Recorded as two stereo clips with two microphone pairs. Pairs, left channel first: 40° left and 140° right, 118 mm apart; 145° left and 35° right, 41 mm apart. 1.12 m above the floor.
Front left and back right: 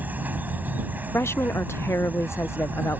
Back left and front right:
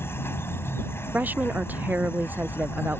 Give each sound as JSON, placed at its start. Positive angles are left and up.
{"t": 0.0, "sound": "an insect", "azimuth_deg": 150}
{"t": 1.1, "sound": "a woman speaking", "azimuth_deg": -20}